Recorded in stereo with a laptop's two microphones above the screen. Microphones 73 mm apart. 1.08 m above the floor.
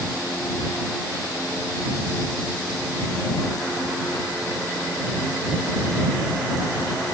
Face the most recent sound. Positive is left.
No sound to turn to.